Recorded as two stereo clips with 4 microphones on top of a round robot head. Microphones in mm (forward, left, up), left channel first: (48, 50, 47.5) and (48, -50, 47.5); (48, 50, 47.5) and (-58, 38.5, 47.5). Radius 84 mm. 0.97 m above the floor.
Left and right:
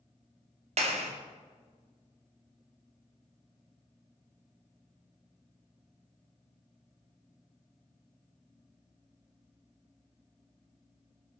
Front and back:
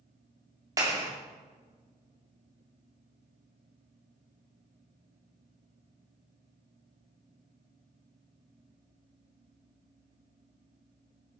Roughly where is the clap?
Right.